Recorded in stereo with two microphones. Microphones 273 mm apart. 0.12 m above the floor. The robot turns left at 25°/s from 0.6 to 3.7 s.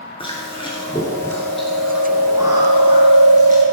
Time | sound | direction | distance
0.2 | chewing | 30° left | 1.7 m